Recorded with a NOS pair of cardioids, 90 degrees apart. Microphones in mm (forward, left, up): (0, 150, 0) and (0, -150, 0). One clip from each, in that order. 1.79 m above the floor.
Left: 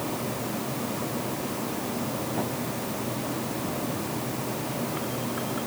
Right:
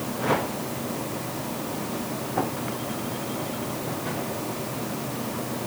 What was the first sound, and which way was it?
Only background noise.